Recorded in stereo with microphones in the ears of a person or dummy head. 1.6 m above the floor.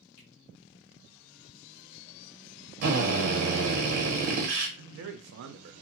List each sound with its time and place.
0.2 s a finger snap: 60° left (ahead or behind), 1.8 m
2.8 s a drill: 50° right (ahead or behind), 1.1 m
4.8 s a man speaking: 65° right (ahead or behind), 0.7 m